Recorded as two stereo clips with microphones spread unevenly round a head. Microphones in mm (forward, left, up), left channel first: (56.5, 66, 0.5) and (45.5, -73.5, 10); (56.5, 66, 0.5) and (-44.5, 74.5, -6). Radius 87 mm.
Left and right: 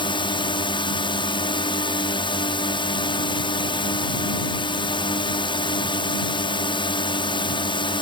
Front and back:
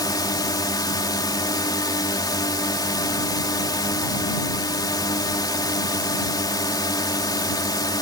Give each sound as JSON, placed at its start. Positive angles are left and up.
{"t": 0.0, "sound": "a drone", "azimuth_deg": 40}